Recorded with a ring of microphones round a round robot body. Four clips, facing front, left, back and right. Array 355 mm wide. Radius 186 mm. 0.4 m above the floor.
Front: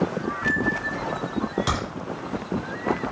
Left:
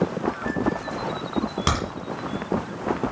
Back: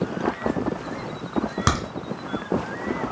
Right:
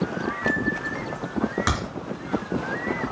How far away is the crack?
About 3 m.